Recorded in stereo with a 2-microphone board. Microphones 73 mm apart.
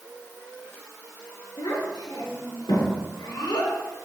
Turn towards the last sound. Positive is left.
turn(degrees=85)